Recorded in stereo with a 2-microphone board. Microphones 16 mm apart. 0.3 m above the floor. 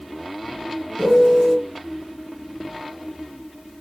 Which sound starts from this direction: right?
A piano, at 1.0 s.